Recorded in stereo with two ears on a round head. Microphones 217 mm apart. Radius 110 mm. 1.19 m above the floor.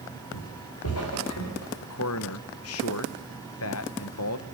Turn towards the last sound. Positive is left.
turn(degrees=65)  # may be behind; listen again after turning